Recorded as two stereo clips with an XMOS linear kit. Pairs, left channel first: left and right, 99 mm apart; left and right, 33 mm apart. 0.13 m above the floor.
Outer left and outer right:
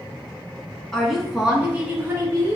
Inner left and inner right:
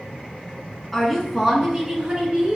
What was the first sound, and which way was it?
A woman speaking, 5° left (ahead or behind).